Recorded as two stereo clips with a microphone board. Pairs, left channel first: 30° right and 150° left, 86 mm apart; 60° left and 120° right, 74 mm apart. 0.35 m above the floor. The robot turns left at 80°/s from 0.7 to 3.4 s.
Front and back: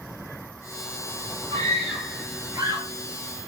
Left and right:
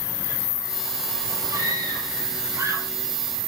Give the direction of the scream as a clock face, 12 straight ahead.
3 o'clock.